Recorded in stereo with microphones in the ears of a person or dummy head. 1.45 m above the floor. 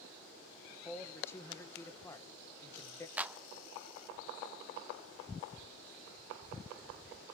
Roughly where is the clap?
Centre.